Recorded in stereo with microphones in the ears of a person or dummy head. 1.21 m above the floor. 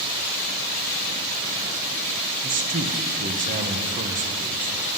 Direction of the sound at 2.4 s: 35° right (ahead or behind).